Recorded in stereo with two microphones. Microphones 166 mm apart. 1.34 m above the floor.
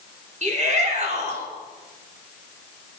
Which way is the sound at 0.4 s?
45° right (ahead or behind).